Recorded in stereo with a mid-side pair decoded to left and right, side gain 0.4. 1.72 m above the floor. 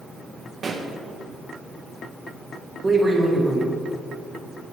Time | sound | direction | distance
0.6 | a pop | 50° right | 1.8 m
2.8 | a man speaking | 35° right | 4.5 m